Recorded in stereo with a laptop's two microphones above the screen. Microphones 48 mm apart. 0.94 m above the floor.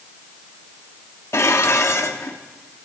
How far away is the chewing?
No chewing in this recording.